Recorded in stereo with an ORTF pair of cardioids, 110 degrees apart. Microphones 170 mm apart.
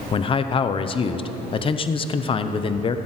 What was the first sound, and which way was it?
A man speaking, 30° left.